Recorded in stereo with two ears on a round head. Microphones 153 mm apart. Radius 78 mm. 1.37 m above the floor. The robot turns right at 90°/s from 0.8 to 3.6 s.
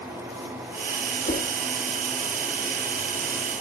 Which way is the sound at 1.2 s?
45° left (ahead or behind).